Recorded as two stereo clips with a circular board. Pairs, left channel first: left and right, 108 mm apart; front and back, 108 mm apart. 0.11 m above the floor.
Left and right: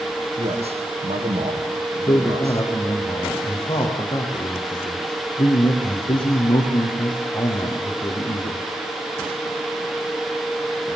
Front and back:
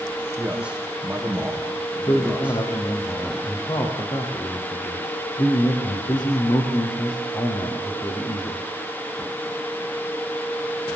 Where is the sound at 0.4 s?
100° right, 6.5 m.